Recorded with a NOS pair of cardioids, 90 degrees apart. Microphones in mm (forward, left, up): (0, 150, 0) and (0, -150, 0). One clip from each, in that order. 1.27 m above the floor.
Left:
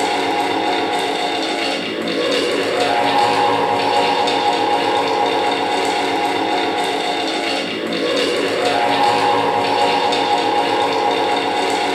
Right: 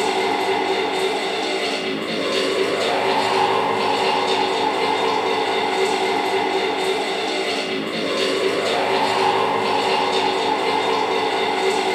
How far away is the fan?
About 0.9 m.